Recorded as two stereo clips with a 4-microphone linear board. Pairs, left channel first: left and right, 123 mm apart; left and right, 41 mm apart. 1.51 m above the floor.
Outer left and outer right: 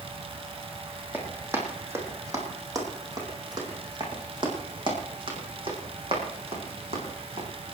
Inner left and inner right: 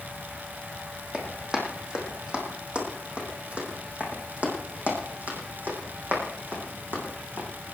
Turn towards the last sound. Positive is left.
turn(degrees=-55)  # may be behind; listen again after turning